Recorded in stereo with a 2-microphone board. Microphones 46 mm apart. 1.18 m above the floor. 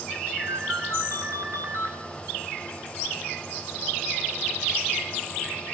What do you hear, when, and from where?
0.4 s a ringtone: 80° right, 3.5 m